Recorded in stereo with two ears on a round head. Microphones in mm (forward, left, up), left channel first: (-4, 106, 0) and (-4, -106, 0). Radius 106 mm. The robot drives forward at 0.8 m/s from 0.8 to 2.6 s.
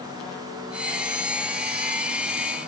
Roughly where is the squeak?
No squeak in this recording.